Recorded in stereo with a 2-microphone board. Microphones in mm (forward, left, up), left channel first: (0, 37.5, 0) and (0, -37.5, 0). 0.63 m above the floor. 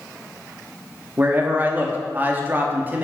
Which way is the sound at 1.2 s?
25° right (ahead or behind).